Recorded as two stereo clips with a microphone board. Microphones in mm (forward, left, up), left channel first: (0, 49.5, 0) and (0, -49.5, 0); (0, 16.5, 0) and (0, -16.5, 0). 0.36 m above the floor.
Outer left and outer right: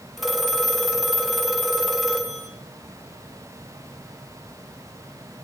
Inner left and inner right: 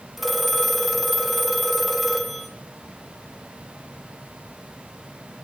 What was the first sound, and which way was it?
A phone ringing, centre (ahead or behind).